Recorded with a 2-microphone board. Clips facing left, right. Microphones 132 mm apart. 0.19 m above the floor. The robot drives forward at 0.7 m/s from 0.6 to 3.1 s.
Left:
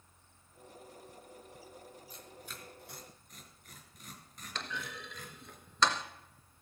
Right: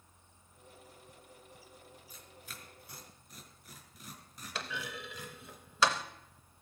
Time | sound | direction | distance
2.1 | tearing paper | 5° right (ahead or behind) | 1.6 m
4.5 | a clunk | 5° right (ahead or behind) | 0.7 m